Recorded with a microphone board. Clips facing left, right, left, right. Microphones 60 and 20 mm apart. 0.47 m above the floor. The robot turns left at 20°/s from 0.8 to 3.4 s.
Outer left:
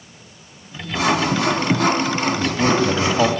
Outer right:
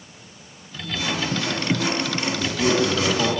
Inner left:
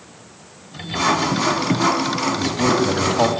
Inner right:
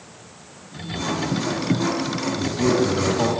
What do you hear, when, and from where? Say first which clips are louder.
0.9 s sawing: outer left 7 dB, inner left 7 dB; 75° left, 0.9 m; by 3.4 s 25° left, 0.9 m
2.4 s a man speaking: outer left 1 dB, inner right 1 dB; 70° left (ahead or behind), 3 m; by 3.4 s 60° left (ahead or behind), 3 m